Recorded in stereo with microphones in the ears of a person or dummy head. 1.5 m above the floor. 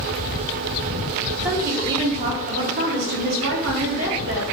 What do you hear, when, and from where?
1.4 s a woman speaking: 10° right (ahead or behind), 0.7 m; by 4.4 s 80° right, 1.7 m